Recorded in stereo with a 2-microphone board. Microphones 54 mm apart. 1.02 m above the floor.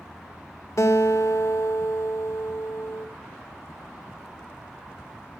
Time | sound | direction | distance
0.8 | a guitar | 75° left (ahead or behind) | 1.3 m